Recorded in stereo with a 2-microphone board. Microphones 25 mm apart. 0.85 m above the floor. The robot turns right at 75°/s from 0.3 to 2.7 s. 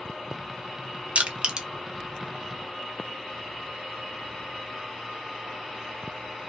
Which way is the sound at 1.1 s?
65° right (ahead or behind).